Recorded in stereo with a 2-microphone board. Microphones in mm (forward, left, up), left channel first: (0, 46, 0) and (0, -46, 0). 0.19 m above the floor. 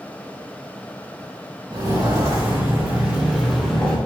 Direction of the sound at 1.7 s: 35° right (ahead or behind).